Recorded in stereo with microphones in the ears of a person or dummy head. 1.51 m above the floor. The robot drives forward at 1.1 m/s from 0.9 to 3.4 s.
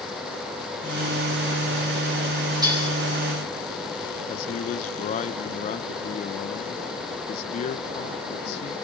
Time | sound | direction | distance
2.6 | dishes clattering | 20° right (ahead or behind) | 8 m
4.3 | a man speaking | 40° left (ahead or behind) | 0.8 m